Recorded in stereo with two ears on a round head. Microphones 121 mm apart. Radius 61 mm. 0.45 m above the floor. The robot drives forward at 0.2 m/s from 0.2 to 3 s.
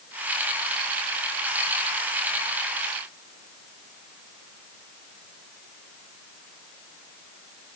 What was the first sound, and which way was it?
Only background noise.